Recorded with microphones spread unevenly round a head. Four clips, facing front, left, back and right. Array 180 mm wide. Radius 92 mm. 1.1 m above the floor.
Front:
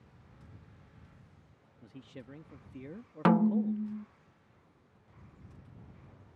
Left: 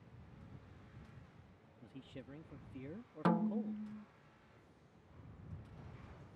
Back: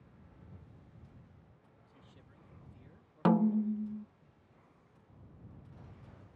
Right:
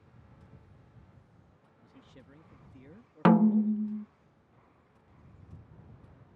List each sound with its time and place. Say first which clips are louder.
1.8 s a man speaking: left 4 dB, front 14 dB; 15° left
3.2 s a snare drum: right 13 dB, front 2 dB; 65° right